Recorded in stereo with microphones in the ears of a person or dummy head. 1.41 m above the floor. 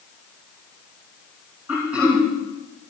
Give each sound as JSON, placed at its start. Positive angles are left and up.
{"t": 1.7, "sound": "throat clearing", "side_deg": -10, "distance_m": 6.0}